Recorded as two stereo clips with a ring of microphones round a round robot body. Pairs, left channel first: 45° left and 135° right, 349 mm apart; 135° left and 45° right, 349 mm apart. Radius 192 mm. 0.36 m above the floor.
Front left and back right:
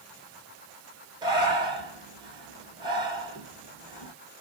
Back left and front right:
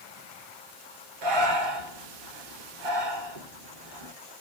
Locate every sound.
1.2 s breathing: 55° right, 1.4 m